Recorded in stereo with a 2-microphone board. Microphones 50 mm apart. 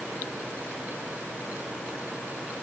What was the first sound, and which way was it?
Only background noise.